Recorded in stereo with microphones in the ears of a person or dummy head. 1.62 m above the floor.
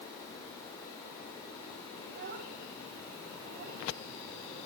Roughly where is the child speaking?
Right.